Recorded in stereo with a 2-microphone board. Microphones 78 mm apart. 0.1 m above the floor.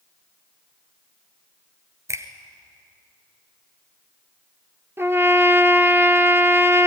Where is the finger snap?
40° right (ahead or behind), 1.2 m.